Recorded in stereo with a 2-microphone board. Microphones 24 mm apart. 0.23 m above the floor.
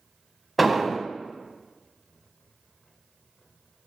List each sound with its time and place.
0.6 s an explosion: 5° right (ahead or behind), 0.6 m